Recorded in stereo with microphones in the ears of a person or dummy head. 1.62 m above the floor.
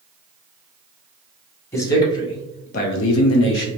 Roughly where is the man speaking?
Centre.